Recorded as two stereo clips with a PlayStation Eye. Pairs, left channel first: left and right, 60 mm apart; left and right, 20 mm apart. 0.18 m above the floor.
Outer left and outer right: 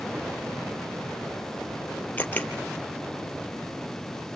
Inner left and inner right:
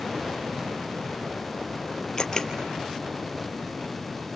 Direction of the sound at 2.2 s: 30° left (ahead or behind).